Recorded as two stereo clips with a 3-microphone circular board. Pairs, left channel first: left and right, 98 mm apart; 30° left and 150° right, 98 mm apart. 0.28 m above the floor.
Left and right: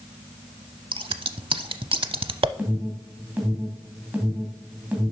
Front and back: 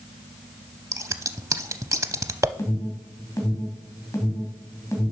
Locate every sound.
0.9 s scissors: 95° right, 0.6 m
2.6 s an alarm: 20° right, 2.5 m